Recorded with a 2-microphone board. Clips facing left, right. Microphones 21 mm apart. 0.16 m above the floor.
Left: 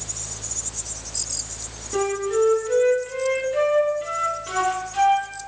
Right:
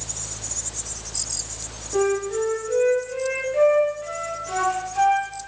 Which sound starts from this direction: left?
A flute, at 1.9 s.